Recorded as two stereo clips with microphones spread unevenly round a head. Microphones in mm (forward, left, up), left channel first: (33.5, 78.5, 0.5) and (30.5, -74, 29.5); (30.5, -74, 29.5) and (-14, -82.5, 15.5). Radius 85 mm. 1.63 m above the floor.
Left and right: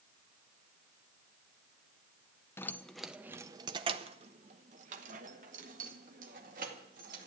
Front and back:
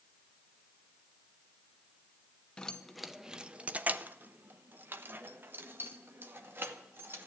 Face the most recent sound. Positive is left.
turn(degrees=-130)